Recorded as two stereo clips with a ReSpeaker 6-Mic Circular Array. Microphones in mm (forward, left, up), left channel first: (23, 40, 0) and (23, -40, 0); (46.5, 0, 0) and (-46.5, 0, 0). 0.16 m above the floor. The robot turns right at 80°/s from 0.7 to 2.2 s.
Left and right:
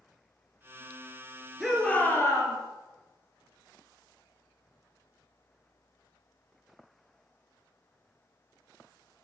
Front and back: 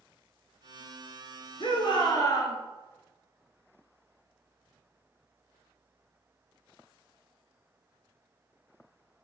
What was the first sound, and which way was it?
A shout, 5° right.